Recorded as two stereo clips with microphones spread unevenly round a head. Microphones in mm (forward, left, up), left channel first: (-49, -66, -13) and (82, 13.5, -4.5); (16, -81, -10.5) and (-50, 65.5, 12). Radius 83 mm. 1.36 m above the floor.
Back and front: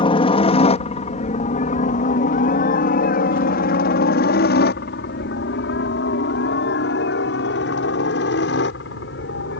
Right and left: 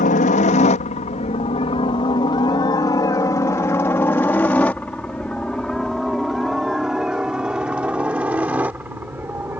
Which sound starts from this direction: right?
A helicopter, at 0.0 s.